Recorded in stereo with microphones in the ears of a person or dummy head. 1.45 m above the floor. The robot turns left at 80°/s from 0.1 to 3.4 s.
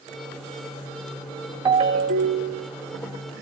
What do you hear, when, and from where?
1.6 s a ringtone: 30° right, 1.9 m; by 2.7 s 115° right, 1.9 m